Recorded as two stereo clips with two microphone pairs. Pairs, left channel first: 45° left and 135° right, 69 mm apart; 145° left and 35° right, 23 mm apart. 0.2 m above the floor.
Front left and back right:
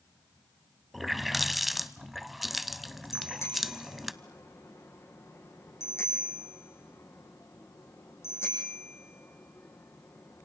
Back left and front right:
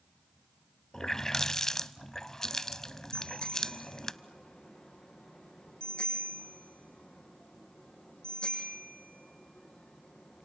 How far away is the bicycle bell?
About 6 m.